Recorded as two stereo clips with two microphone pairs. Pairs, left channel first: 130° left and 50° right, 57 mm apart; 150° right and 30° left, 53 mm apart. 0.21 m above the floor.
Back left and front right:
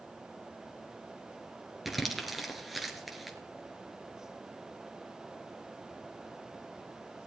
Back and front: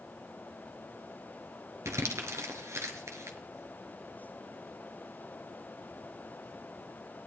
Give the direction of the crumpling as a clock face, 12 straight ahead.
11 o'clock.